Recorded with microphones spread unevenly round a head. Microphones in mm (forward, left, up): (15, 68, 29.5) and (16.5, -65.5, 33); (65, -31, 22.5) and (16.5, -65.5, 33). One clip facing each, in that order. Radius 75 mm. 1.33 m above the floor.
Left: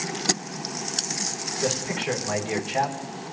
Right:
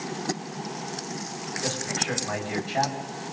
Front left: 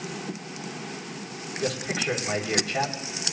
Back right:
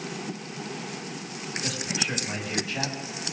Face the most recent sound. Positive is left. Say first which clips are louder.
# left 5 dB, front left 5 dB
turn(degrees=20)